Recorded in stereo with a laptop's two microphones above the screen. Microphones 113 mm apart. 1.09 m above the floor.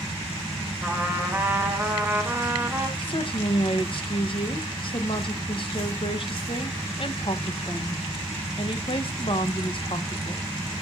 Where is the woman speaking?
50° left (ahead or behind), 1.2 m.